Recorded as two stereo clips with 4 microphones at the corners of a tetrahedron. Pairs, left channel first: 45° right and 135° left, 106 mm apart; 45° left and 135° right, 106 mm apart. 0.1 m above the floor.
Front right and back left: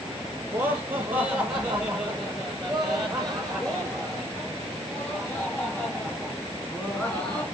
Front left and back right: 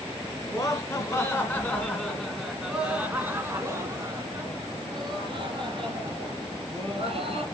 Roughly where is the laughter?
Left.